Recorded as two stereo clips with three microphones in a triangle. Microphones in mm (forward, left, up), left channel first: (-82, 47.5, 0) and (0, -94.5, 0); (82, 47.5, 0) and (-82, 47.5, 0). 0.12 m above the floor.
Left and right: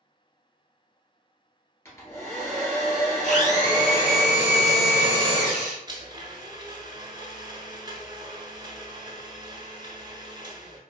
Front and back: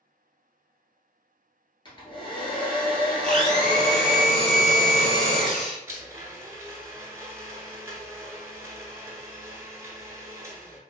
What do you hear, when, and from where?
1.9 s a hair dryer: 50° left, 1.3 m
3.2 s a blender: 85° left, 1.2 m
5.9 s a blender: 115° right, 0.6 m